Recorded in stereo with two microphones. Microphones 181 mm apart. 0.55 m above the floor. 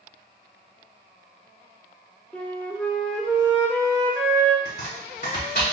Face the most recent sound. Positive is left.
turn(degrees=65)  # may be behind; listen again after turning